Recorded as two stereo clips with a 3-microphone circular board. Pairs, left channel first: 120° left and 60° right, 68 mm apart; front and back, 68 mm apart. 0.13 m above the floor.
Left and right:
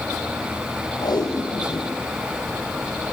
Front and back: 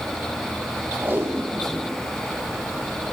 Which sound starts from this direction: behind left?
Tape being pulled, at 1.0 s.